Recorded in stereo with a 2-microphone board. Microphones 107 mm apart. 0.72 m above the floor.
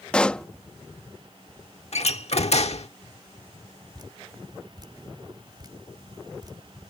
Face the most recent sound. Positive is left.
turn(degrees=-40)  # may be behind; listen again after turning